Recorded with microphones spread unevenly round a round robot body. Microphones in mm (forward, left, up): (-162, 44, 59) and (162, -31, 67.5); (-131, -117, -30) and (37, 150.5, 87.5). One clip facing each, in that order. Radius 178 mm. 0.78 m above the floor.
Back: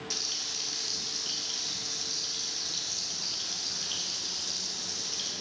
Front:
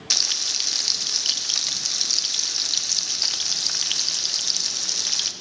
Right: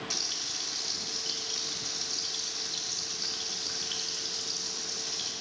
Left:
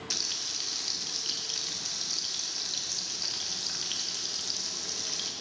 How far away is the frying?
About 0.6 m.